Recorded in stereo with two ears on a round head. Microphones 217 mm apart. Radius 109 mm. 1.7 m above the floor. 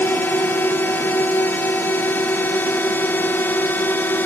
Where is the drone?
10° left (ahead or behind).